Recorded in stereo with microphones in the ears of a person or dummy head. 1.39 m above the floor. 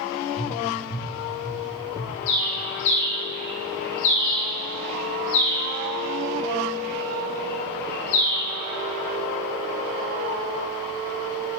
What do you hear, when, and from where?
0.4 s tapping: 65° left (ahead or behind), 2.5 m
2.3 s a bird: 60° left (ahead or behind), 1.7 m